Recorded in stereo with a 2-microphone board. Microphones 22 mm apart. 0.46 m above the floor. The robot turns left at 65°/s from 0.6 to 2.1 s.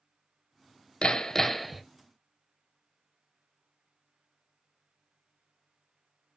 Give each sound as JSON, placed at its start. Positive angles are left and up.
{"t": 1.0, "sound": "hammering", "azimuth_deg": 45, "distance_m": 0.5}